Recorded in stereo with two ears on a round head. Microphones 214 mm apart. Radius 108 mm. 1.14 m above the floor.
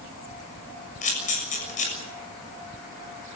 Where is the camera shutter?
30° left (ahead or behind), 6.5 m.